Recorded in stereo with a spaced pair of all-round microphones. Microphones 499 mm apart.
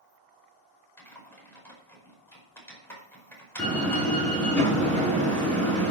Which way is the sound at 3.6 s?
Centre (ahead or behind).